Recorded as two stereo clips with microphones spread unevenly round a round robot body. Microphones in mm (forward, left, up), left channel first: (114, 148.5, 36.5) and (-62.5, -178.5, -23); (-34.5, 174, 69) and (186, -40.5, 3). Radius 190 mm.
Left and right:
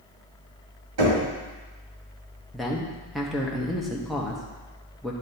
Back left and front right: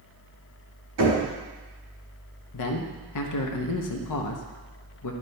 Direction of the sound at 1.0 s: 90° right.